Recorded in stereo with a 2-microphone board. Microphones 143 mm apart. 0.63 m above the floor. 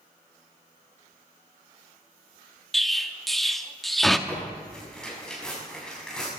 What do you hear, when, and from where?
2.7 s an explosion: centre (ahead or behind), 0.8 m
4.3 s tearing paper: 5° left (ahead or behind), 6 m